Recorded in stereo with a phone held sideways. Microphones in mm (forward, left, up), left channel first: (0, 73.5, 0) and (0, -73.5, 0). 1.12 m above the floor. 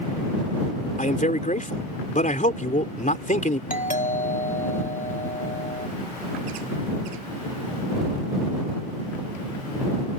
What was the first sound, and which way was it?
A man speaking, 60° left (ahead or behind).